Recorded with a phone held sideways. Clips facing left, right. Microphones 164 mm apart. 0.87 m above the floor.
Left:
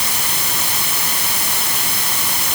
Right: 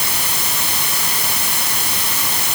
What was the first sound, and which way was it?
Only background noise.